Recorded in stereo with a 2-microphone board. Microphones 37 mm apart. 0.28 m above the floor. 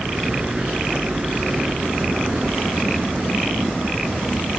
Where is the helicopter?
25° right (ahead or behind); by 4.6 s 35° right (ahead or behind).